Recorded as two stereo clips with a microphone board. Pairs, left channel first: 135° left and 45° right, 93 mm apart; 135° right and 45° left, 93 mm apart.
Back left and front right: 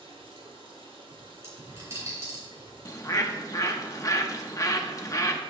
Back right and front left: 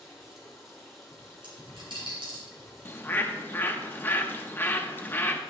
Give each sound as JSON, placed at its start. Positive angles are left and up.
{"t": 0.0, "sound": "running water", "azimuth_deg": -45, "distance_m": 2.0}
{"t": 1.4, "sound": "a dropped coin", "azimuth_deg": 15, "distance_m": 3.5}
{"t": 2.9, "sound": "a bird", "azimuth_deg": 170, "distance_m": 0.7}